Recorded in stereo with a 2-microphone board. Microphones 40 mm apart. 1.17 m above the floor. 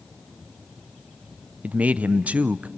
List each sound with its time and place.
1.6 s a man speaking: 35° right (ahead or behind), 0.6 m